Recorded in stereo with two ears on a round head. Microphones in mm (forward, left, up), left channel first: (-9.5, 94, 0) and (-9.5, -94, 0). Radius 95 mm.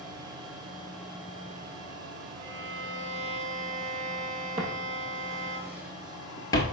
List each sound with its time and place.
2.4 s a violin: 60° right (ahead or behind), 2 m
4.6 s footsteps: 35° right (ahead or behind), 1.4 m; by 6.6 s 20° left (ahead or behind), 0.9 m